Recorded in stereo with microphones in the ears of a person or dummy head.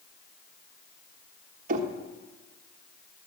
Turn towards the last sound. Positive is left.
turn(degrees=-45)  # may be behind; listen again after turning